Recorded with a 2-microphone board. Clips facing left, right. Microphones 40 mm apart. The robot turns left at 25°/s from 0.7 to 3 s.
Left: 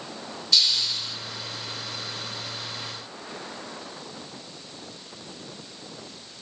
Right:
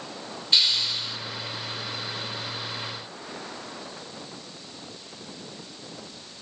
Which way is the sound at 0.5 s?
30° right (ahead or behind).